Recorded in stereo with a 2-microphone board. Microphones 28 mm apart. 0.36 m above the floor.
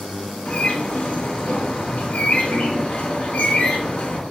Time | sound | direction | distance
0.5 | a bird | 50° left (ahead or behind) | 2.5 m